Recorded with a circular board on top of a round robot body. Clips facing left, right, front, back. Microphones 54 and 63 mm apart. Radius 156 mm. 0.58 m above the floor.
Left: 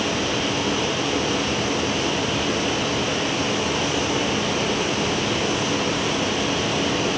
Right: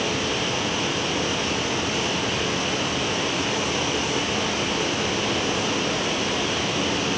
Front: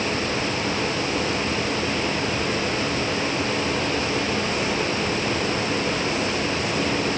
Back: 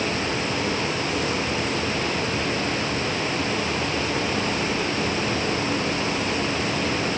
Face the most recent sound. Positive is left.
No sound to turn to.